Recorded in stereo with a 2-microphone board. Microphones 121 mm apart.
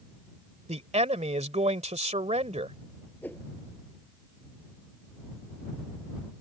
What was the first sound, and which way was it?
A man speaking, 70° right (ahead or behind).